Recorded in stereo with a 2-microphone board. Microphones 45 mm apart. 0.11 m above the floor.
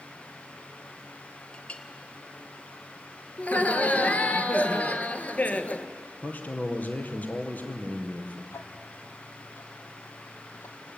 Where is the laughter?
35° left (ahead or behind), 1.6 m.